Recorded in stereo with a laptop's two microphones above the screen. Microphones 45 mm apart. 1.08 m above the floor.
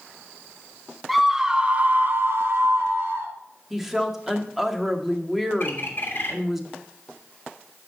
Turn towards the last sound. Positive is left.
turn(degrees=50)  # may be behind; listen again after turning